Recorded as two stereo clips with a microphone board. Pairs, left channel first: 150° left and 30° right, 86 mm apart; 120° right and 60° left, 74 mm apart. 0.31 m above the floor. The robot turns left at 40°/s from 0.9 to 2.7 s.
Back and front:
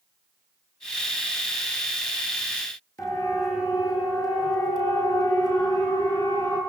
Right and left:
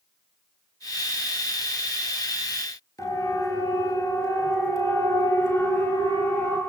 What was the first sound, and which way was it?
A siren, 160° right.